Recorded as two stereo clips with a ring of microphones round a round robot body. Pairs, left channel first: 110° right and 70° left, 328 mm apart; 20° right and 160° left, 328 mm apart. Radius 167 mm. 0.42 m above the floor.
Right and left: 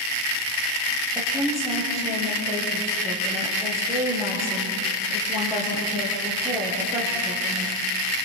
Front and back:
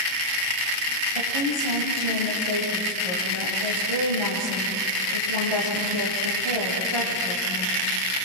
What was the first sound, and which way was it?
A woman speaking, 150° left.